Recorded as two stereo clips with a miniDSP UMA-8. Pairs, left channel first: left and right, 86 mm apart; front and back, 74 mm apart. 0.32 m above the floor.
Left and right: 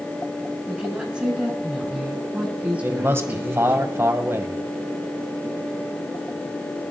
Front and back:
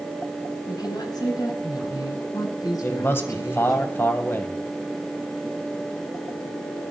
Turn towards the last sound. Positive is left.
turn(degrees=-45)